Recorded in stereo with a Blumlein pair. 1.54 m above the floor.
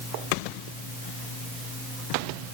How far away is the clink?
No clink in this recording.